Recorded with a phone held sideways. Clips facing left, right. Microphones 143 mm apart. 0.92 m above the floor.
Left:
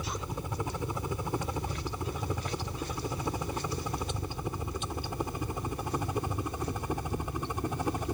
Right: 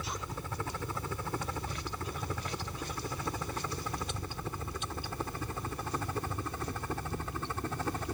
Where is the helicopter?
15° left (ahead or behind).